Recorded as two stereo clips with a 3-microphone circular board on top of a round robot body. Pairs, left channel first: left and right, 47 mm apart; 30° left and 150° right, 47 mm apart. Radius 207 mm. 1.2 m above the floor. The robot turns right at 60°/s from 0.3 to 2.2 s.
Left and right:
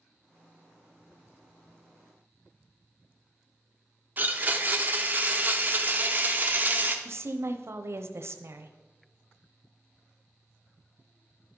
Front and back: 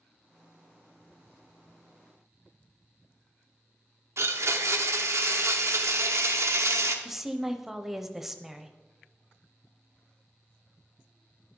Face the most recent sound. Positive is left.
turn(degrees=-65)